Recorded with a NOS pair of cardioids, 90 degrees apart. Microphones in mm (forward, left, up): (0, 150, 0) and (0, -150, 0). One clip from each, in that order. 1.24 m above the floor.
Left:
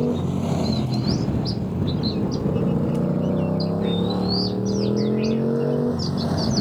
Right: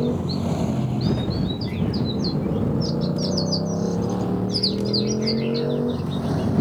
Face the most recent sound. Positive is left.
turn(degrees=30)